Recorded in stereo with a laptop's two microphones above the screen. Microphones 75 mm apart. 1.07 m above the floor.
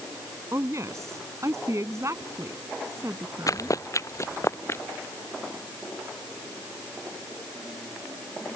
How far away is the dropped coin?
I don't hear a dropped coin.